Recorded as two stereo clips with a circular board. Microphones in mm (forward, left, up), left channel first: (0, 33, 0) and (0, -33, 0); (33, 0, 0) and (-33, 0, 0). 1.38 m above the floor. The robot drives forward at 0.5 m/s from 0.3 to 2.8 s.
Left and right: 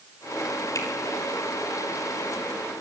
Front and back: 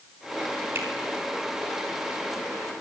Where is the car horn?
I don't hear a car horn.